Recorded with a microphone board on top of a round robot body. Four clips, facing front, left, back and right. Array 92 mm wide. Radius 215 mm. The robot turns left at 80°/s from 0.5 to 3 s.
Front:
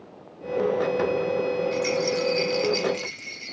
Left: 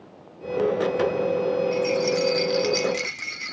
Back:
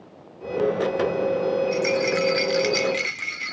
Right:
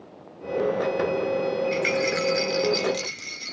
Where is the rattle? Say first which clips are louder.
Left 2 dB, back 2 dB; 105° right, 1.8 m; by 3.5 s 150° left, 1.8 m.